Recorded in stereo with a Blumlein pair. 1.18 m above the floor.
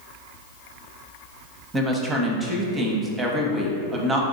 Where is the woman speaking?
15° right, 0.7 m.